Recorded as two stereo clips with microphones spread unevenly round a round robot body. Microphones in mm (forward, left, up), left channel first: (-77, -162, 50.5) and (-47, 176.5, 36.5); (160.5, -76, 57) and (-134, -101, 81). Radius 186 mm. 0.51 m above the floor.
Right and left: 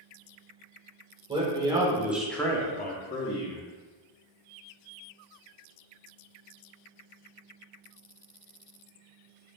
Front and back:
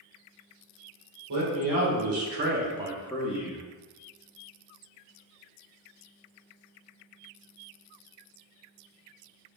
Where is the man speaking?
160° left, 1.9 m; by 3.6 s 45° right, 1.3 m.